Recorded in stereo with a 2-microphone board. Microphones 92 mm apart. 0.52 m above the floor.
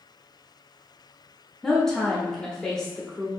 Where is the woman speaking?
5° left (ahead or behind), 0.7 m.